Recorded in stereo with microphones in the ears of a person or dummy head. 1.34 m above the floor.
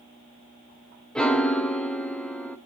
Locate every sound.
1.1 s a piano: 10° left (ahead or behind), 0.9 m